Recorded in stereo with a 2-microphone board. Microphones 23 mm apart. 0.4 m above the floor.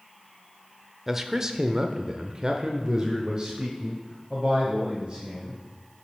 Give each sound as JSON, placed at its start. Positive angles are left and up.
{"t": 1.1, "sound": "a man speaking", "side_deg": -15, "distance_m": 0.9}